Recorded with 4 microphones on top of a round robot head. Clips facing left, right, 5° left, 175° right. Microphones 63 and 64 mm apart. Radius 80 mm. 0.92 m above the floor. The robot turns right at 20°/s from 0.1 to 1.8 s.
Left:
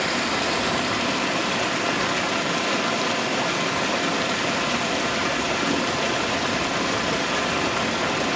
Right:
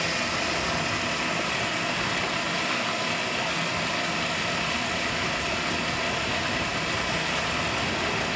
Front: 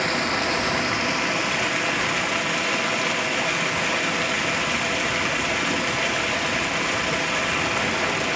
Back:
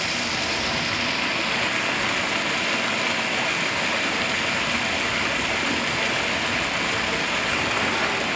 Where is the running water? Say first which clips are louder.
Left 4 dB, front 4 dB; 60° left, 1.7 m; by 8.4 s 95° left, 1.7 m.